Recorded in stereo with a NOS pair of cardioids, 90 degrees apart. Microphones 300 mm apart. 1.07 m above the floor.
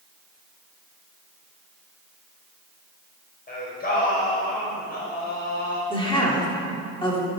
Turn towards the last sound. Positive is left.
turn(degrees=15)